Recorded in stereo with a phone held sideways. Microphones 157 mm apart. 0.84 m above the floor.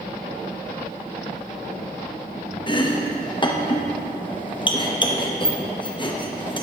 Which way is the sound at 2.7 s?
30° left (ahead or behind).